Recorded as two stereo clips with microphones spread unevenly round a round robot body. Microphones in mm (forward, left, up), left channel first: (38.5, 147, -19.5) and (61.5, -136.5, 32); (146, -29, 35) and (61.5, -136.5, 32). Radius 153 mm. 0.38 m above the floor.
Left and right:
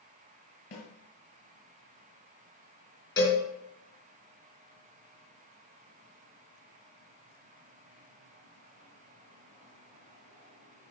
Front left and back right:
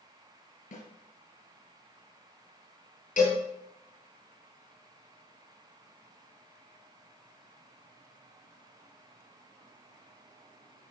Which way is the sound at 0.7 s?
55° left.